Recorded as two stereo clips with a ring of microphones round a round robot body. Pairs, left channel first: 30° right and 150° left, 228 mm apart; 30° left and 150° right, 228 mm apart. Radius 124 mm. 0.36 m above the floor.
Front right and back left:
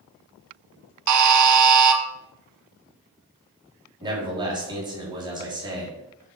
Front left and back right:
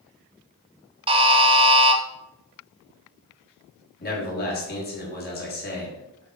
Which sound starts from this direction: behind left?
A buzzer, at 1.1 s.